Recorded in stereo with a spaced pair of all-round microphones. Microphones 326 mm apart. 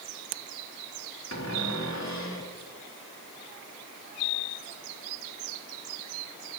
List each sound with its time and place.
1.3 s a cupboard door: 55° left (ahead or behind), 4 m